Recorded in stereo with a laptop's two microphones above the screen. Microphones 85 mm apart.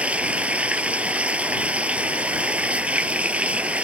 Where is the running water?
15° right (ahead or behind).